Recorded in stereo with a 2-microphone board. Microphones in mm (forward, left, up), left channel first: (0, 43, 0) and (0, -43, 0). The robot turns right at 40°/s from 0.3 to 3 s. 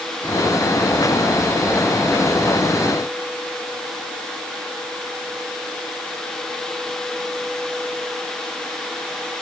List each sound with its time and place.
Only background noise.